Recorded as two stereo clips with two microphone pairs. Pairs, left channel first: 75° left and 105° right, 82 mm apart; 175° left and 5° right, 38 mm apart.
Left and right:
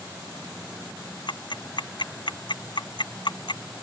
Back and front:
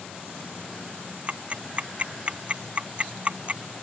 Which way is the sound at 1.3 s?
50° left.